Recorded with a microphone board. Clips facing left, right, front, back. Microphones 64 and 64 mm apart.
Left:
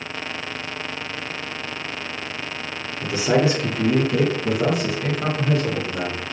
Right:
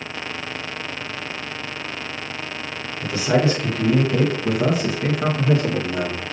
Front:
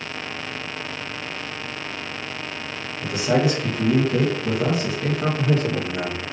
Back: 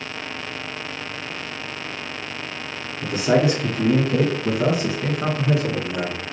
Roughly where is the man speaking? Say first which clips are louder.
Even, back 2 dB; behind left.